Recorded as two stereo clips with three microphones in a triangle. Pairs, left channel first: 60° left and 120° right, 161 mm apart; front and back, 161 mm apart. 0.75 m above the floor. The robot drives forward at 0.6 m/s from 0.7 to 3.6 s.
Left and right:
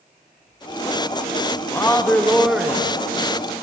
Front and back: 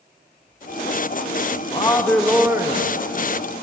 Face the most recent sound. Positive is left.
turn(degrees=175)